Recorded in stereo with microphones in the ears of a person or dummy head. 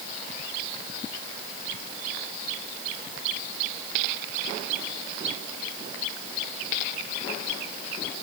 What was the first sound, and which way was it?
Only background noise.